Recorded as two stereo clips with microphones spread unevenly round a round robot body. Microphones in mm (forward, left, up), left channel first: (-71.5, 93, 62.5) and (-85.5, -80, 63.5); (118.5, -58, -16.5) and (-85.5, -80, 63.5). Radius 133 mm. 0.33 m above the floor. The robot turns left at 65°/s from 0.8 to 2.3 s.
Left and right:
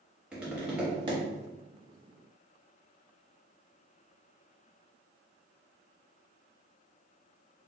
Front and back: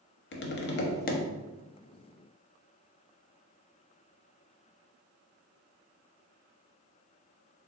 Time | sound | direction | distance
0.3 | tapping | 10° right | 0.5 m